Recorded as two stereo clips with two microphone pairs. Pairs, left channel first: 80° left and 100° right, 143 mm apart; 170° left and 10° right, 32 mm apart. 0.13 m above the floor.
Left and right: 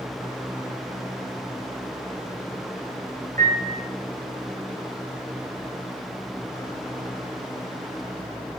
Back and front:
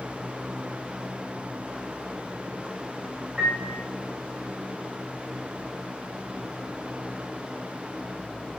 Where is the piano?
85° right, 3 m.